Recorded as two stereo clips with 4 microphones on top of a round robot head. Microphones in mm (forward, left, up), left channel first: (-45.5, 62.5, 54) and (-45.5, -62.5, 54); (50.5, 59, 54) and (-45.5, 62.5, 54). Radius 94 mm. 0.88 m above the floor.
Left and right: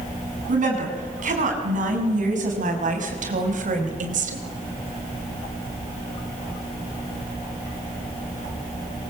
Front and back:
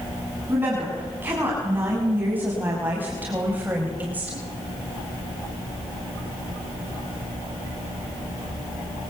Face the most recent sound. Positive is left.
turn(degrees=-105)